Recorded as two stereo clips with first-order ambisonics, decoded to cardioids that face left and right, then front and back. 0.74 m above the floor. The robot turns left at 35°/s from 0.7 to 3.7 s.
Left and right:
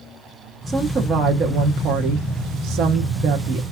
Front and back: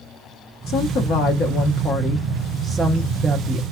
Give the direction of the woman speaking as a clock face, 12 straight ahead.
1 o'clock.